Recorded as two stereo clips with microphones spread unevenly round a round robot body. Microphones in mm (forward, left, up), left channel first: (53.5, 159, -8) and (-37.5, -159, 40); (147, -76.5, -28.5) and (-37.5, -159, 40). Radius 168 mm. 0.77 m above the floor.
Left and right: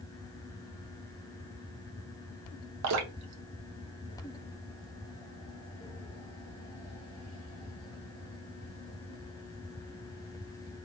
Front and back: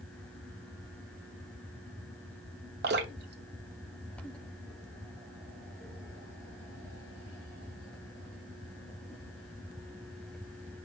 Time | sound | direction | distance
2.8 | dripping | 145° right | 0.6 m